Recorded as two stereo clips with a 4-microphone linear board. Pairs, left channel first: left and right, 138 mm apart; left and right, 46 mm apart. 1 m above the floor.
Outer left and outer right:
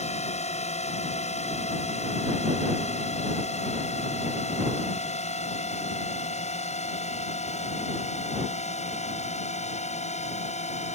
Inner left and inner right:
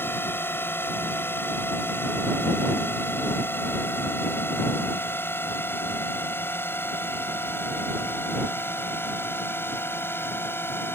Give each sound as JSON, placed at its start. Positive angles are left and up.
{"t": 0.0, "sound": "a drone", "side_deg": 55}